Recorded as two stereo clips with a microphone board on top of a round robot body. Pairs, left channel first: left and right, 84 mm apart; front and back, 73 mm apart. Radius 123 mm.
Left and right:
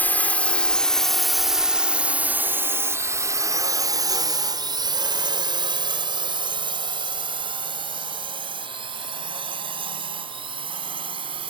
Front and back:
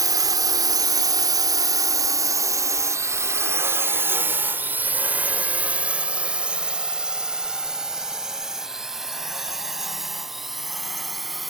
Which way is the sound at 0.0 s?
155° left.